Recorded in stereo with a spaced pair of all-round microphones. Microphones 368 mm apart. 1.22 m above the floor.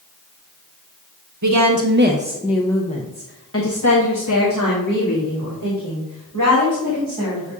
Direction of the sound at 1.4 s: 50° right (ahead or behind).